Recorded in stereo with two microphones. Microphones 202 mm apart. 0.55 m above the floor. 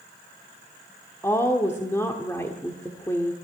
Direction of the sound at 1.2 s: 15° left (ahead or behind).